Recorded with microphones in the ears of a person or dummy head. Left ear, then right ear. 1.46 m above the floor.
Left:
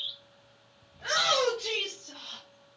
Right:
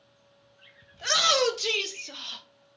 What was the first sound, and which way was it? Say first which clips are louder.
A shout: right 3 dB; 65° right (ahead or behind).